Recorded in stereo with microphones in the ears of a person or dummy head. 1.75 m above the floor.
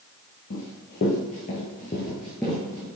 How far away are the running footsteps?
About 3 m.